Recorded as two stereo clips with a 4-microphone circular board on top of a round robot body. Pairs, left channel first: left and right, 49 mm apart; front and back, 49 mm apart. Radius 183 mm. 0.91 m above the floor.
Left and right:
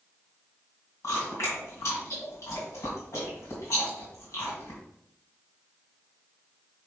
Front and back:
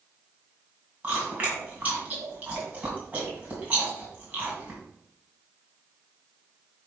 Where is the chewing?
120° left, 2.5 m.